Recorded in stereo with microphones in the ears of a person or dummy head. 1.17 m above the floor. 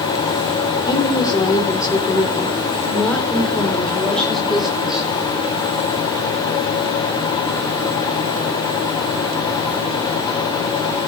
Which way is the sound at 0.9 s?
25° left (ahead or behind).